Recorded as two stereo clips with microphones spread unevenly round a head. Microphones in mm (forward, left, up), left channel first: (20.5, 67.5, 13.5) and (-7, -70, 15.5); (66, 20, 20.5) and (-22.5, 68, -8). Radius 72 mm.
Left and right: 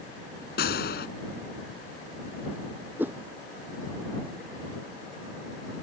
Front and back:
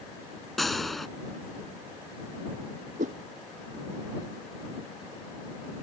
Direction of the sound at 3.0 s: Straight behind.